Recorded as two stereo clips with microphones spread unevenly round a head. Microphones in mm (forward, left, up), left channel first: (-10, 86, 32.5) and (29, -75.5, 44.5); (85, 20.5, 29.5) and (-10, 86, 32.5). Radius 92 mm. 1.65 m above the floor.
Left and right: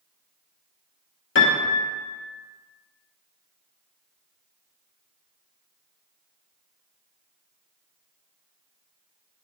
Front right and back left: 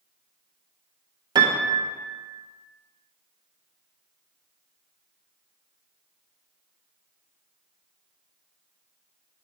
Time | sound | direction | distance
1.4 | a piano | 105° left | 1.1 m